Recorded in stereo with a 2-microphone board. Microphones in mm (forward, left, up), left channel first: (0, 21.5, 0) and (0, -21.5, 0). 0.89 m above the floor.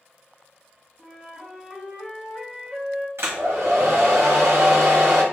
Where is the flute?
Centre (ahead or behind), 0.9 m.